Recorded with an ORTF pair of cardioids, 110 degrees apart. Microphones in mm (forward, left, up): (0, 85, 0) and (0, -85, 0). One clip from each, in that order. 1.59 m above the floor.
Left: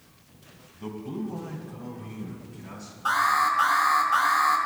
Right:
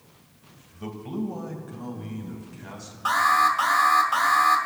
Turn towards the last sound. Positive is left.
turn(degrees=-35)